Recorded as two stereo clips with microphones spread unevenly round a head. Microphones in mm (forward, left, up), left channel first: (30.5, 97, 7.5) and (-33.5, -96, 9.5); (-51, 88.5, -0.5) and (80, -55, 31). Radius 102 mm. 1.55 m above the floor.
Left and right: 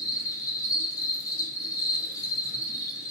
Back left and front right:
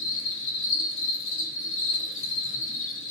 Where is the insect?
145° left, 0.7 m.